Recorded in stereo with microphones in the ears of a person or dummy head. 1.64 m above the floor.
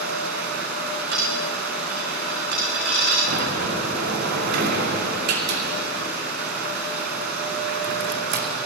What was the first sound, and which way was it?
Running water, 60° right (ahead or behind).